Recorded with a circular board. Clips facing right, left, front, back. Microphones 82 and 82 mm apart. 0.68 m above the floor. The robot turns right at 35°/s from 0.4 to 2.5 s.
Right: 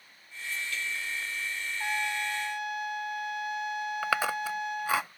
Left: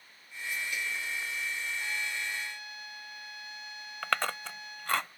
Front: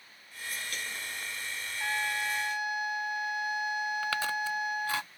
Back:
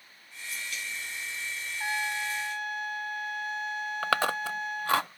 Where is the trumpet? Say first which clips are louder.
Right 5 dB, even; 105° right; by 5.0 s 80° right.